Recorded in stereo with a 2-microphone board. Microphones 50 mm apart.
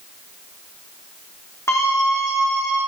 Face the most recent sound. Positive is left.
turn(degrees=55)  # may be behind; listen again after turning